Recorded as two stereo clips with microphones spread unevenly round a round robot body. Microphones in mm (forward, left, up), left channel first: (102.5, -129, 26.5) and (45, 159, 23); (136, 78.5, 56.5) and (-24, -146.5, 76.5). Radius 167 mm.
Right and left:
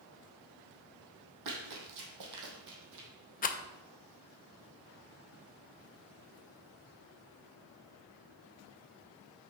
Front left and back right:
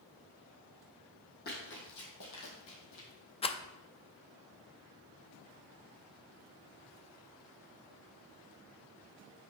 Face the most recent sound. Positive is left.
turn(degrees=-15)